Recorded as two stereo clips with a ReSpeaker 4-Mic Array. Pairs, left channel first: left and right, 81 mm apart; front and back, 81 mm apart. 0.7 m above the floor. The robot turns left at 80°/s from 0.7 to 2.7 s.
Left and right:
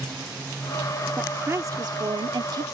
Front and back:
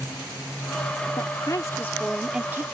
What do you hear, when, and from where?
1.2 s a woman speaking: 10° right; by 2.6 s 125° right